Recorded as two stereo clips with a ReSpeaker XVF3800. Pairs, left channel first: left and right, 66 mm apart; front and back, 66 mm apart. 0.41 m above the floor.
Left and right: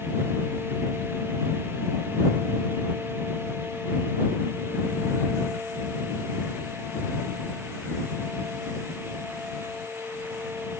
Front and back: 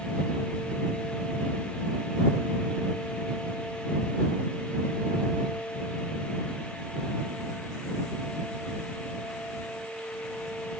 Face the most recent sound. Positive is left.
No sound to turn to.